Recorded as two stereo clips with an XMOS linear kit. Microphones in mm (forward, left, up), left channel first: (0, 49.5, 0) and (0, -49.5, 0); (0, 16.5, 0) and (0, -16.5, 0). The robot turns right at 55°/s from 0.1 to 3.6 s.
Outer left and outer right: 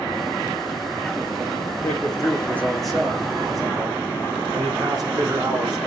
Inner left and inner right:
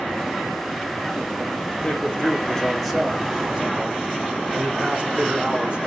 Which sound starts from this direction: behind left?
A man speaking, at 1.8 s.